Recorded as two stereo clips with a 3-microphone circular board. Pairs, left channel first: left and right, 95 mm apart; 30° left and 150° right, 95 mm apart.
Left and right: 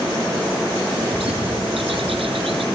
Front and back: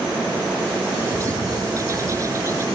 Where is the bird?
95° right.